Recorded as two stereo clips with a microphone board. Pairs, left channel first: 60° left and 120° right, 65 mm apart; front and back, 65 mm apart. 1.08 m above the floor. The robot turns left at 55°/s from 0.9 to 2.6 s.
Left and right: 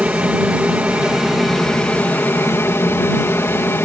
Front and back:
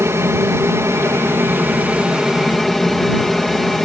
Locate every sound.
0.0 s an aircraft: straight behind; by 3.9 s 85° left